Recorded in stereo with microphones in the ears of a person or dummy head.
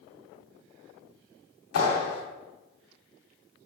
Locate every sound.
1.7 s a clap: 80° left, 3 m